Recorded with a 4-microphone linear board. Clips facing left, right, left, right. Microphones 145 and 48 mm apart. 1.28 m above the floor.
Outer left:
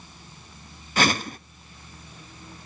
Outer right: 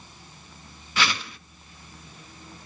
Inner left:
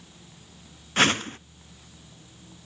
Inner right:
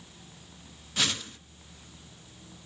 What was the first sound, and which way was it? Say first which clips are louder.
A whoosh: outer left 5 dB, inner left 9 dB; 45° left (ahead or behind).